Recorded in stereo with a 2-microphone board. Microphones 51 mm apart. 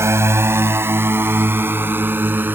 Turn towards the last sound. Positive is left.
turn(degrees=-40)  # may be behind; listen again after turning